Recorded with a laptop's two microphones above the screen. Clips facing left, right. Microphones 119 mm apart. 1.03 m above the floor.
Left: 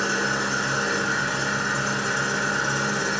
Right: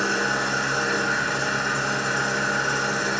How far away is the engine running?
About 3.5 m.